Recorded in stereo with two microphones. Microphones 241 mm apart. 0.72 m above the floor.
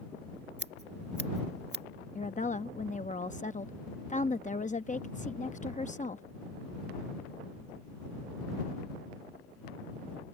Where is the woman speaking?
30° left (ahead or behind).